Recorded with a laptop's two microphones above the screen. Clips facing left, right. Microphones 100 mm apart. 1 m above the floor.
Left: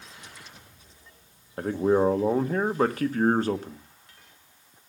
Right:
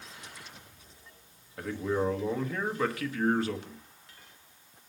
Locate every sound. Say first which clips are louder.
1.6 s a man speaking: left 8 dB; 40° left (ahead or behind), 1.1 m